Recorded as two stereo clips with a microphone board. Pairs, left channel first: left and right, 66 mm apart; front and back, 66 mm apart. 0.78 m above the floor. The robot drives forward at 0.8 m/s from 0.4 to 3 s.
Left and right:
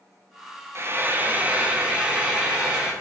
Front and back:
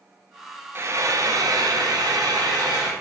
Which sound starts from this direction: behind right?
Frying, at 0.8 s.